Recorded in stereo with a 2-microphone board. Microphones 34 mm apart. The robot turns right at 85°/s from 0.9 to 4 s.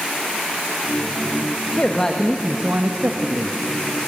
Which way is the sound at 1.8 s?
135° left.